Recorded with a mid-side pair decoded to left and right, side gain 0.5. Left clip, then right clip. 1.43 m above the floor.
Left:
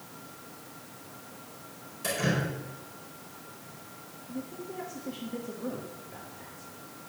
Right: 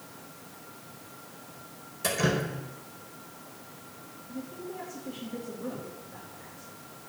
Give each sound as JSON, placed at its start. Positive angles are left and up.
{"t": 2.0, "sound": "dripping", "azimuth_deg": -35, "distance_m": 4.5}
{"t": 4.3, "sound": "a man speaking", "azimuth_deg": 10, "distance_m": 3.5}